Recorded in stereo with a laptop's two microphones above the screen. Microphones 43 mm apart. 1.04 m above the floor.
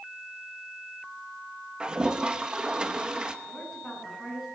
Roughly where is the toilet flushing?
Centre.